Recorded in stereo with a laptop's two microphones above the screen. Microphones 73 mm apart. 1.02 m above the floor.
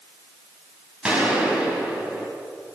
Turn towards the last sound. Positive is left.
turn(degrees=-10)  # may be behind; listen again after turning